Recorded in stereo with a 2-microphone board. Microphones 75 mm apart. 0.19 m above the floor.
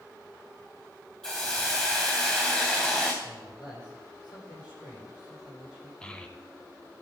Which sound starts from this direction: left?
A man speaking, at 3.2 s.